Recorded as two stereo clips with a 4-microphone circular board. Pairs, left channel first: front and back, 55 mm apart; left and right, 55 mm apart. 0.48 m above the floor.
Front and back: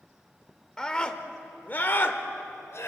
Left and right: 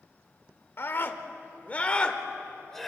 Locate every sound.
0.8 s a scream: 75° left, 1.6 m; by 2.9 s 5° left, 1.8 m